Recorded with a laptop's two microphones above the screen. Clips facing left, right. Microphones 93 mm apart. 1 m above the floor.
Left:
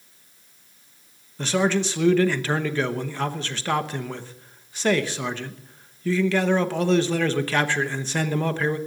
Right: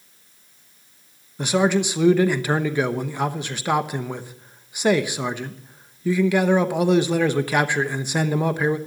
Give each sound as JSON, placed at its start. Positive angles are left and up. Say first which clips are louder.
{"t": 1.4, "sound": "a man speaking", "louder": "right 3 dB", "side_deg": -15, "distance_m": 0.9}